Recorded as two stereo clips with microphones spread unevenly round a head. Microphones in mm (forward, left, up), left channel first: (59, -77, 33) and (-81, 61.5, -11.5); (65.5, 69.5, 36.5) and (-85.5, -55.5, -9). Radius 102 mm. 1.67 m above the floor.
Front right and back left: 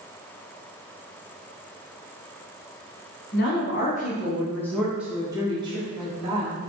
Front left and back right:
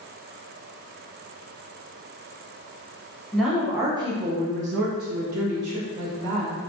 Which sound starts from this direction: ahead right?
A woman speaking, at 3.3 s.